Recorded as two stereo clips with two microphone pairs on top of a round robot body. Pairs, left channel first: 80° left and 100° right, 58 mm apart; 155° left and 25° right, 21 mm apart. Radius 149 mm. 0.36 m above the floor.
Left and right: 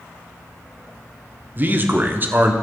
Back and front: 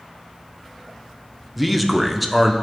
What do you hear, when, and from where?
1.6 s a man speaking: 100° right, 1.1 m